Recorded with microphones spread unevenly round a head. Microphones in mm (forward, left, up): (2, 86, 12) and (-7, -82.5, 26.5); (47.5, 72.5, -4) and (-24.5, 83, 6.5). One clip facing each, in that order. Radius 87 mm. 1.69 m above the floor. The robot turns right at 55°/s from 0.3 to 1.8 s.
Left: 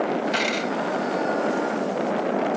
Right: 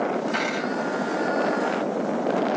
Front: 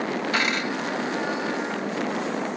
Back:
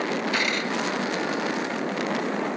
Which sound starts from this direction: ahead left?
A dropped coin, at 0.3 s.